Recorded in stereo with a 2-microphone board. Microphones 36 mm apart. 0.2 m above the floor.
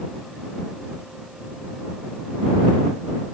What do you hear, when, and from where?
Only background noise.